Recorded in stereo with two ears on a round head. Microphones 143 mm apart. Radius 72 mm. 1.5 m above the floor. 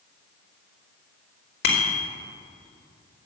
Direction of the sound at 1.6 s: 70° left (ahead or behind).